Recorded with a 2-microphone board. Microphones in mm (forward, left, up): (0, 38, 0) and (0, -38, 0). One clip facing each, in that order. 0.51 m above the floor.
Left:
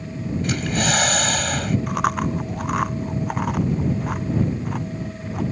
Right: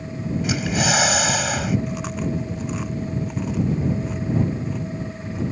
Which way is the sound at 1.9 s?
60° left (ahead or behind).